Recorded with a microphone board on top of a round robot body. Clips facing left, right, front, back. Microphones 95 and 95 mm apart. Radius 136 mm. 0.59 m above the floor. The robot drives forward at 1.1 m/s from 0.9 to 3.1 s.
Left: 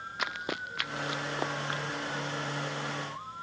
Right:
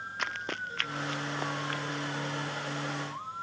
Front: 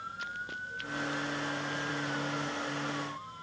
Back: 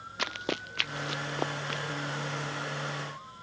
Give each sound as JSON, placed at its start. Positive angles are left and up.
{"t": 0.2, "sound": "running footsteps", "azimuth_deg": 175}